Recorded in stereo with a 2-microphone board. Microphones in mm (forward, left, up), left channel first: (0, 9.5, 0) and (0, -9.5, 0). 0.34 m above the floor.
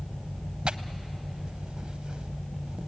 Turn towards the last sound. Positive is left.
turn(degrees=-70)  # may be behind; listen again after turning